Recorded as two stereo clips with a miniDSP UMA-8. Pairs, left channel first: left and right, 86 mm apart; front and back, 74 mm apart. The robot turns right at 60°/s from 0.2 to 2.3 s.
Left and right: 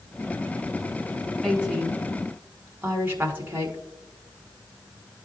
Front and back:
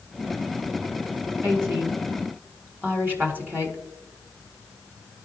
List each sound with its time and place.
1.4 s a woman speaking: 175° left, 1.5 m; by 3.8 s 135° right, 1.5 m